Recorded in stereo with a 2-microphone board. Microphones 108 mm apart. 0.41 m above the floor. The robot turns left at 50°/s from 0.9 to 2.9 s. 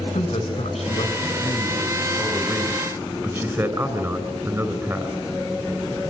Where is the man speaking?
75° left, 5 m; by 5.2 s 25° right, 5 m.